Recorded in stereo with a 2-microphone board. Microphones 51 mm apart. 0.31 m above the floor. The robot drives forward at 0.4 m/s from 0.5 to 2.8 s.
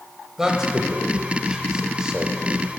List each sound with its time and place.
0.4 s a man speaking: 15° right (ahead or behind), 1.0 m